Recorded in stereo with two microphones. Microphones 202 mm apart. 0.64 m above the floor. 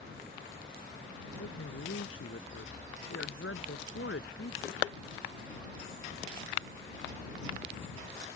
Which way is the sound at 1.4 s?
85° left.